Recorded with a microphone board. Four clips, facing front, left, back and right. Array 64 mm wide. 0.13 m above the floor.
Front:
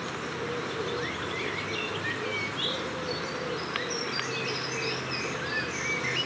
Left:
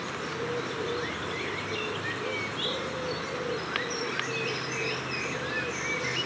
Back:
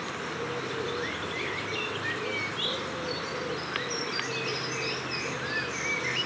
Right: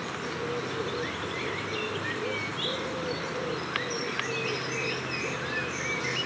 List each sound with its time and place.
Only background noise.